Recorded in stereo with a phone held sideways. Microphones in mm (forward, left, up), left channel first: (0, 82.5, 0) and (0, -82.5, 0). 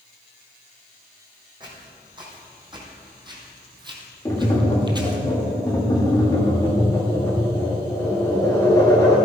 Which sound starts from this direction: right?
Footsteps, at 1.6 s.